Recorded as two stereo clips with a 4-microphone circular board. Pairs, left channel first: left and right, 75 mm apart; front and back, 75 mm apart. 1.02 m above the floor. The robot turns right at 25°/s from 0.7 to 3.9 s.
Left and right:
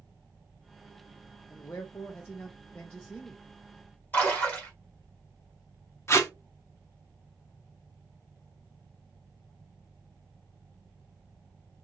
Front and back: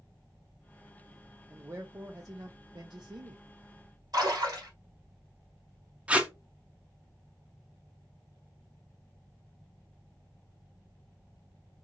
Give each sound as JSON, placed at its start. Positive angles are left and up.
{"t": 1.5, "sound": "a man speaking", "azimuth_deg": 120, "distance_m": 0.5}
{"t": 4.1, "sound": "a splash", "azimuth_deg": 150, "distance_m": 1.5}
{"t": 6.1, "sound": "tape being pulled", "azimuth_deg": 115, "distance_m": 0.6}